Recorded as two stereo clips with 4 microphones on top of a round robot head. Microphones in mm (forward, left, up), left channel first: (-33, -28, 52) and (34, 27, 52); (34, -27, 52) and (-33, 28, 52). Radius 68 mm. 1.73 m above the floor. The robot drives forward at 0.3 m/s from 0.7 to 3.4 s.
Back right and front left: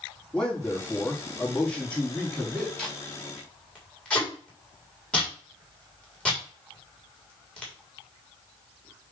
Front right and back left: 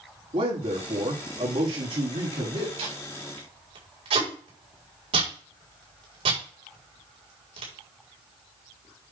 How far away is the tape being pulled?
About 4 m.